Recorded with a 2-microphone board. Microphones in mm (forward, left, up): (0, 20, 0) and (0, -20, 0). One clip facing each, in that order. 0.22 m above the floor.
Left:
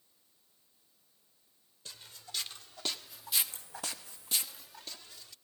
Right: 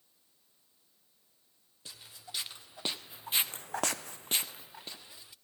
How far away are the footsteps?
About 2.5 m.